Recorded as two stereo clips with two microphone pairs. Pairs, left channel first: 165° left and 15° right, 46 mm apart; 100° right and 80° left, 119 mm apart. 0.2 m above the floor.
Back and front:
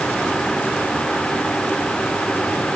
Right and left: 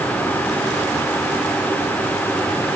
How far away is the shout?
No shout in this recording.